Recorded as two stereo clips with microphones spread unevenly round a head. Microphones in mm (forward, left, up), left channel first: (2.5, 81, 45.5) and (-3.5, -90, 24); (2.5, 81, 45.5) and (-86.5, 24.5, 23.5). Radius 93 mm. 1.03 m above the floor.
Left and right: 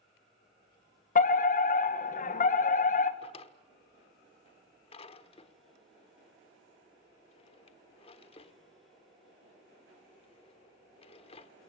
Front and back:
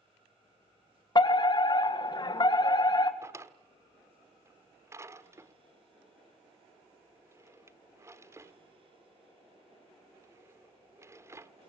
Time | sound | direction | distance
1.1 | a fire alarm | 70° left | 1.9 m
3.2 | a drawer | 145° left | 1.4 m